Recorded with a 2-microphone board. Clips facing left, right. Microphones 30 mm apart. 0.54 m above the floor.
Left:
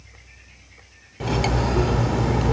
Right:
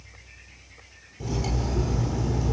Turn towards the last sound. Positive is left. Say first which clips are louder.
# left 7 dB
turn(degrees=70)  # may be behind; listen again after turning